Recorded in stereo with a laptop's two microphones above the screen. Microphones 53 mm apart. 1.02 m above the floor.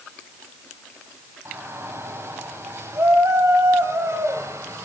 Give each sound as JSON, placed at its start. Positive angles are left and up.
{"t": 1.4, "sound": "a shout", "side_deg": -55, "distance_m": 9.0}